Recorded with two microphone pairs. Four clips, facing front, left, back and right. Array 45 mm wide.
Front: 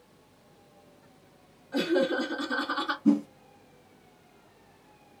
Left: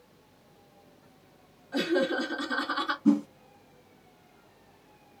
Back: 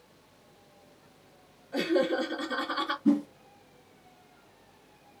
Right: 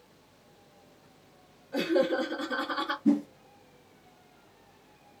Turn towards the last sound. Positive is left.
turn(degrees=95)